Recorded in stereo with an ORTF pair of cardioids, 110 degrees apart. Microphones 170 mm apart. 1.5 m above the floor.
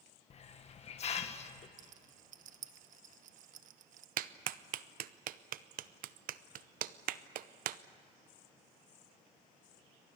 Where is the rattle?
55° right, 1.3 m.